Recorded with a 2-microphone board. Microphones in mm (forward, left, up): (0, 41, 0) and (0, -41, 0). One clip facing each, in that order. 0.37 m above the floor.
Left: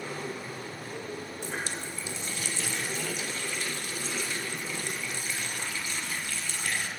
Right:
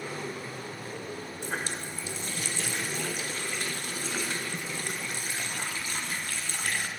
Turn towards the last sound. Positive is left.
turn(degrees=-45)  # may be behind; listen again after turning